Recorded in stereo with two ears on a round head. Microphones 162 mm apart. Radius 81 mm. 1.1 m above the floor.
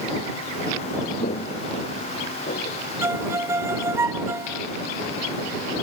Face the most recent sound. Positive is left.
turn(degrees=-15)  # may be behind; listen again after turning